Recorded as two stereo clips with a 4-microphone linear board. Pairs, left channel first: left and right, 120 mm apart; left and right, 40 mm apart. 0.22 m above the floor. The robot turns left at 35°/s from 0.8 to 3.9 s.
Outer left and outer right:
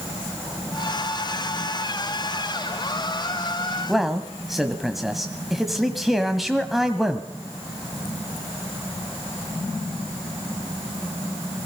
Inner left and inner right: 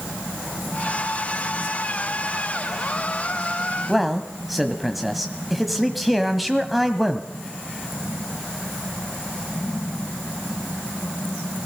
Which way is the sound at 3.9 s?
Centre (ahead or behind).